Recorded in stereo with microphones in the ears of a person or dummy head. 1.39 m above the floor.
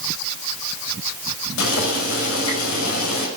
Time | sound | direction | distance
1.6 | boiling | 85° left | 5 m